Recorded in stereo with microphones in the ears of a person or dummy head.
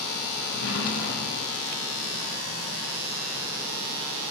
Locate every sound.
0.4 s a drawer: 70° left (ahead or behind), 1.1 m